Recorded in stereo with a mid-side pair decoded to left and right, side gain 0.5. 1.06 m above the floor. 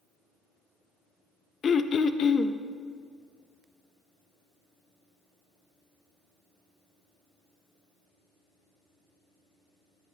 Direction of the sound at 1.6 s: 45° left.